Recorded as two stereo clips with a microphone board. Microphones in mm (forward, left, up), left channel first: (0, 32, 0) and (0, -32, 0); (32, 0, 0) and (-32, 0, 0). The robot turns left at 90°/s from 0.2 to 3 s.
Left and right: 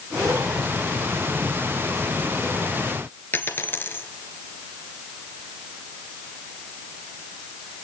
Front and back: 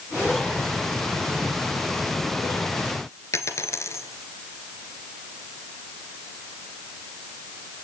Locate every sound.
3.3 s a dropped coin: 35° left, 2 m